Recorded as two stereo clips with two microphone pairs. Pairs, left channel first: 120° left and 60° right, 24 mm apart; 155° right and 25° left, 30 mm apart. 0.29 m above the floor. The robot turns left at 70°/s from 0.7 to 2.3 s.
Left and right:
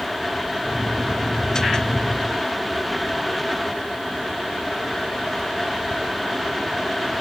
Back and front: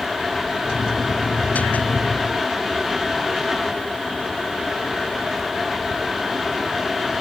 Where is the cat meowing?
No cat meowing in this recording.